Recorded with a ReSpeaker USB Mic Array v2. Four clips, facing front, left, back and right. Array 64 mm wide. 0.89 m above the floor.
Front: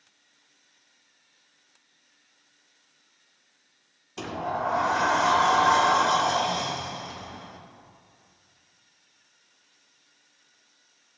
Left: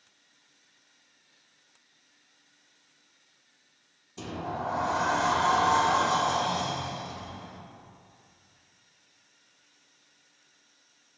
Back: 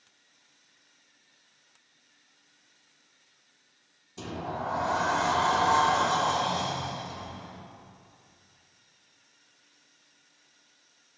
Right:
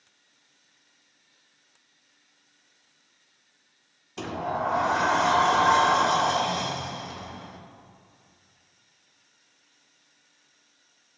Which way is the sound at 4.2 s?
50° right.